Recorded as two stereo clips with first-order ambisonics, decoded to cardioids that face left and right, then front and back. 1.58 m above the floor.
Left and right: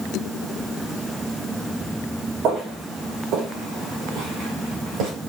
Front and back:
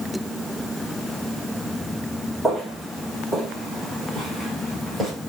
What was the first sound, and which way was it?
Footsteps, 95° right.